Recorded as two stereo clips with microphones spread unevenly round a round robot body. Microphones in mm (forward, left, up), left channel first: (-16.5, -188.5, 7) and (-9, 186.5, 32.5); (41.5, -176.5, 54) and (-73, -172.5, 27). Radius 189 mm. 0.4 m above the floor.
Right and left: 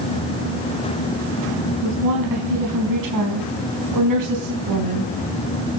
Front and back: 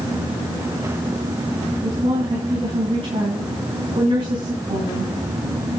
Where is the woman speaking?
130° left, 4.5 m.